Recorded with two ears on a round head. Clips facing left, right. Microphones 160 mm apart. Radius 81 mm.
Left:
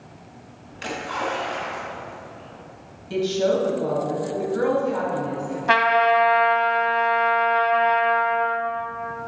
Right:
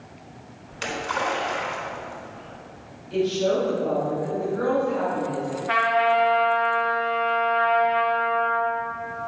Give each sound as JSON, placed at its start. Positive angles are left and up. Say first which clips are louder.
{"t": 0.7, "sound": "a splash", "louder": "right 1 dB", "side_deg": -65, "distance_m": 4.0}
{"t": 3.1, "sound": "a woman speaking", "louder": "left 1 dB", "side_deg": 75, "distance_m": 3.5}
{"t": 5.7, "sound": "a trumpet", "louder": "left 3 dB", "side_deg": 80, "distance_m": 1.6}